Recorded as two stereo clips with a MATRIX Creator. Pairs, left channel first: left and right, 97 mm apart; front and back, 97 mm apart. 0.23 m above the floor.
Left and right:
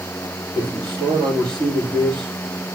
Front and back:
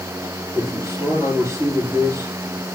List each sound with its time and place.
0.6 s a man speaking: 125° right, 6 m